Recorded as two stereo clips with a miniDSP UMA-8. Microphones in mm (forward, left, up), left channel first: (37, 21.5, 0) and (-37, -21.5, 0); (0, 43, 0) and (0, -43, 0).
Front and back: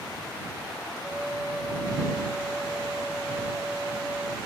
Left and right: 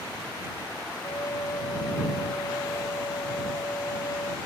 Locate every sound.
1.0 s a flute: 130° left